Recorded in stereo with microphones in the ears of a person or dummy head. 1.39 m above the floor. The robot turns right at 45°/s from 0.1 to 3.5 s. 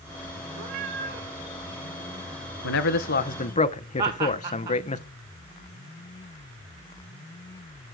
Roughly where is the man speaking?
Left.